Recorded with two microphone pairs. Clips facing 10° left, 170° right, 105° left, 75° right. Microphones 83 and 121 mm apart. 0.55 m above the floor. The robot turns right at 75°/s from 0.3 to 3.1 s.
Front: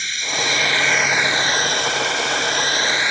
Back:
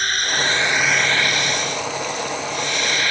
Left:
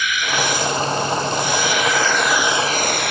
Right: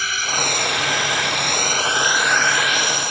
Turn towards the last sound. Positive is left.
turn(degrees=80)